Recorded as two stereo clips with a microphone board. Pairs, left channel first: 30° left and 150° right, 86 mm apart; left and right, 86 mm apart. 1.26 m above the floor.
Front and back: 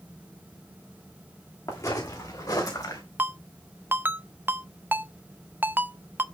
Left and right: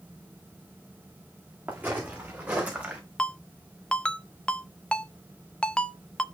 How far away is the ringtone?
About 0.6 m.